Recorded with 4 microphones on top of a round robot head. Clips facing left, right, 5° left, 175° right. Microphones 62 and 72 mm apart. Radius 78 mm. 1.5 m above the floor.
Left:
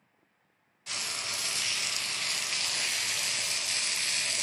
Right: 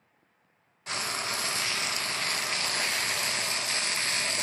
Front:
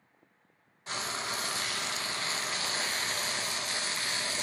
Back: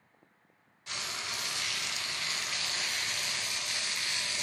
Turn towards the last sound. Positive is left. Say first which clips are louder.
# right 5 dB, front 4 dB
turn(degrees=-45)